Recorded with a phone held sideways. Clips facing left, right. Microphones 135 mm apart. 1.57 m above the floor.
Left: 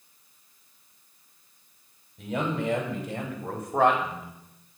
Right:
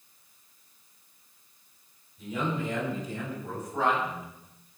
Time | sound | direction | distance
2.2 | a man speaking | 75° left (ahead or behind) | 6 m